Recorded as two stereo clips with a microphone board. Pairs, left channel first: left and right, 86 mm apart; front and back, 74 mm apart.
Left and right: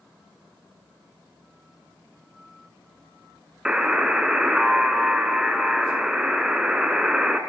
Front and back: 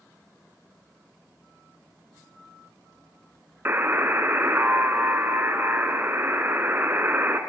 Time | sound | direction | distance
3.6 | a buzzer | 160° right | 0.6 m